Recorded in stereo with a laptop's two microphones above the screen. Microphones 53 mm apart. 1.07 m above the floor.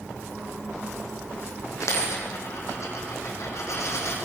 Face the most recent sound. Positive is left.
turn(degrees=70)  # may be behind; listen again after turning